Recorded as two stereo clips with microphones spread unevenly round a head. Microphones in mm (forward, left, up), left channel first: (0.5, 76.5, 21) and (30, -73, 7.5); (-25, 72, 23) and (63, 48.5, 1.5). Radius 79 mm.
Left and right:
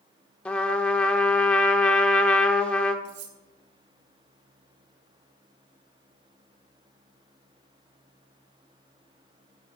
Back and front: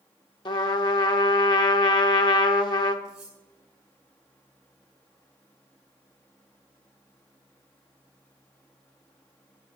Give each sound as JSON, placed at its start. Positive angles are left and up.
{"t": 0.5, "sound": "a trumpet", "azimuth_deg": 180, "distance_m": 1.0}
{"t": 3.0, "sound": "cutlery clinking", "azimuth_deg": -105, "distance_m": 2.0}